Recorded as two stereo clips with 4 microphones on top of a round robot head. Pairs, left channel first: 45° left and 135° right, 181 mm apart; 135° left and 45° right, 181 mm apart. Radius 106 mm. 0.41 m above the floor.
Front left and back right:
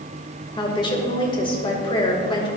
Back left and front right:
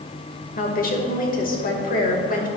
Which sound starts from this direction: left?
A woman speaking, at 0.6 s.